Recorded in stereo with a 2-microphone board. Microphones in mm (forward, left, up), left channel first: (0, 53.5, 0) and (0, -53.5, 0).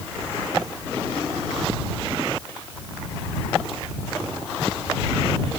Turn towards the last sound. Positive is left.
No sound to turn to.